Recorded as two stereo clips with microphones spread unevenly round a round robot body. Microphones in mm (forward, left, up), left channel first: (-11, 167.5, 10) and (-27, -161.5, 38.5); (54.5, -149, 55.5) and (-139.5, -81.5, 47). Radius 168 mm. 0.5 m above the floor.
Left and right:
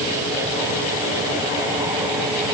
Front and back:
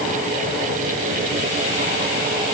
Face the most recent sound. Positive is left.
No sound to turn to.